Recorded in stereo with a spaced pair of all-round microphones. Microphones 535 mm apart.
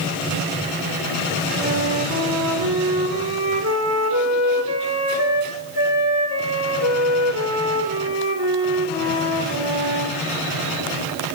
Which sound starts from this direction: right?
A flute, at 1.6 s.